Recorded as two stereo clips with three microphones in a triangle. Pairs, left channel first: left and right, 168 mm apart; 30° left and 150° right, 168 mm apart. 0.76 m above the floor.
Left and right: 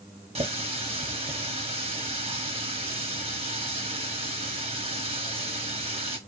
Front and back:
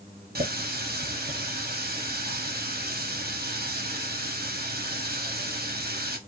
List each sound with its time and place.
0.3 s a running tap: 145° right, 0.9 m